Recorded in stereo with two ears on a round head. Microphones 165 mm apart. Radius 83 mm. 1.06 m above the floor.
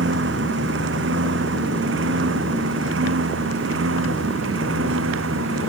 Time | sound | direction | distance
0.0 | a lawn mower | 70° right (ahead or behind) | ?